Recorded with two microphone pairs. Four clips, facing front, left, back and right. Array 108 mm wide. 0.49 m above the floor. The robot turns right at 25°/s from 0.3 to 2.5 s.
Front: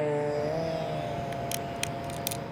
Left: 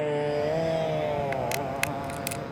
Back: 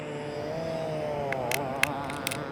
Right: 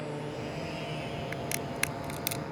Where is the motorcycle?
45° left; by 2.5 s 170° left.